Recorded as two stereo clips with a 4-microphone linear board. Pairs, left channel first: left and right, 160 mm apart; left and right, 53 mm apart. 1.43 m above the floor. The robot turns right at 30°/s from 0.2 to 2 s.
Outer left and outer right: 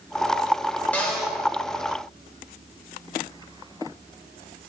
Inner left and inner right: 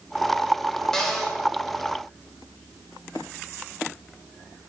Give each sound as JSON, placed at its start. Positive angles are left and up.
{"t": 0.9, "sound": "a cupboard door", "side_deg": 10, "distance_m": 1.2}